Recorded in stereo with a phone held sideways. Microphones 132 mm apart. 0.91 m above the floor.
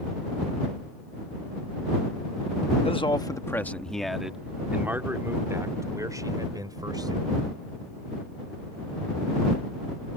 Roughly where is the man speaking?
Left.